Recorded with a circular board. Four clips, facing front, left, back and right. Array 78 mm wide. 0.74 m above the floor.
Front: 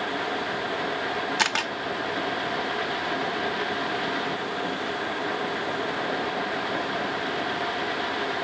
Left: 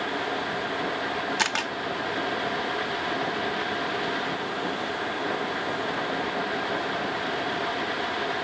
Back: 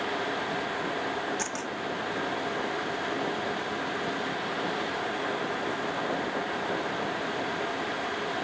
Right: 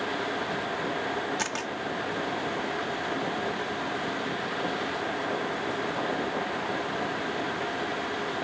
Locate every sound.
1.4 s a camera shutter: 30° left